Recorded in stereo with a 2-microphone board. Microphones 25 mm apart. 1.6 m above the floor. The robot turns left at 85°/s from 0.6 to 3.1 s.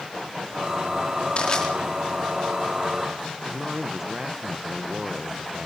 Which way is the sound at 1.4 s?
45° left (ahead or behind).